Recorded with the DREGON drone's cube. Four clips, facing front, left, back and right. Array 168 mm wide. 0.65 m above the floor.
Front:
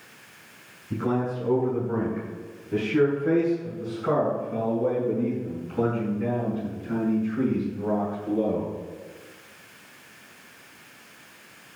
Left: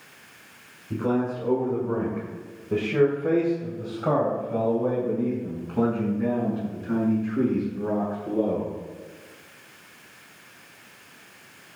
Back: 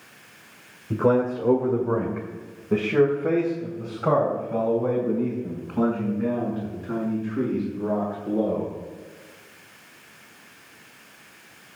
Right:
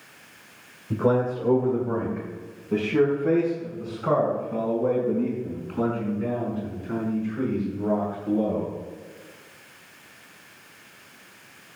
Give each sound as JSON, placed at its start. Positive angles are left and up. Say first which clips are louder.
{"t": 0.9, "sound": "a man speaking", "louder": "right 3 dB, back 6 dB", "azimuth_deg": -155, "distance_m": 2.0}